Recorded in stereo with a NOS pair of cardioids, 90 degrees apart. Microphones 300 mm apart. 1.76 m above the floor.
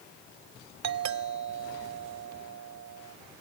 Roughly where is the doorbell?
Ahead right.